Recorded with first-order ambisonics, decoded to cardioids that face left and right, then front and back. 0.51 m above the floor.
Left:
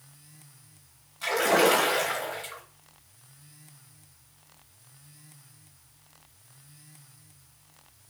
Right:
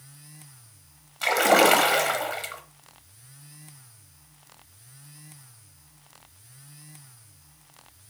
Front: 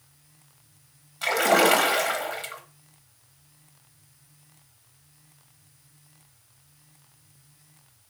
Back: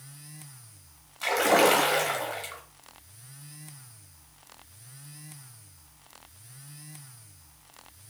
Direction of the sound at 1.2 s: 75° right.